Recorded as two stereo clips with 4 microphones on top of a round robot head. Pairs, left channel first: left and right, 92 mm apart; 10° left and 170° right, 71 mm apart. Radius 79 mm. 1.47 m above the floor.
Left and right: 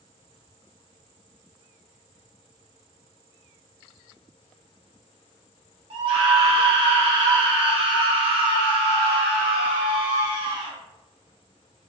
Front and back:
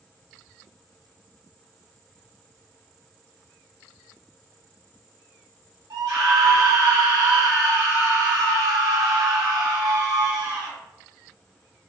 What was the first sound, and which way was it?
A scream, 130° right.